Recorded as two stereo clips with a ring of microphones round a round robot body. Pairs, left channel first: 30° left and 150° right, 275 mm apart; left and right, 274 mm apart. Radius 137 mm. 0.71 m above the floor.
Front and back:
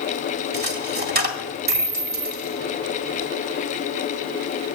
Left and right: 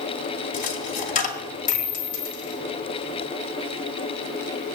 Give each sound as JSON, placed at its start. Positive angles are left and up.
{"t": 0.5, "sound": "a dropped coin", "azimuth_deg": 155, "distance_m": 1.7}